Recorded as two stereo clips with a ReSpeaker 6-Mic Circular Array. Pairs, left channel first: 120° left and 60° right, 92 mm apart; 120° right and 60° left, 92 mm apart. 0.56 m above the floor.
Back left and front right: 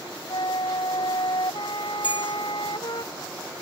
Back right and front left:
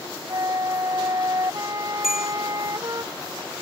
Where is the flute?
100° left.